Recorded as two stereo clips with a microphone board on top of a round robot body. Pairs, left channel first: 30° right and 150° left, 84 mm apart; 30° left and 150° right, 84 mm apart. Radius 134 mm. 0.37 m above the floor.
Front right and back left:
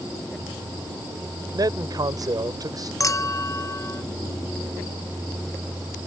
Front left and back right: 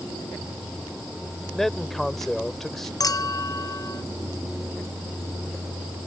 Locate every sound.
1.5 s a man speaking: 115° left
3.0 s a clink: 5° left